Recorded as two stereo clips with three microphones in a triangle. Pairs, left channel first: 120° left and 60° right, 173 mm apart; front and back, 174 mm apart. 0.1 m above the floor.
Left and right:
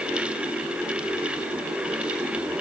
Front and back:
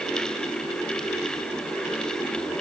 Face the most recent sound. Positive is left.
No sound to turn to.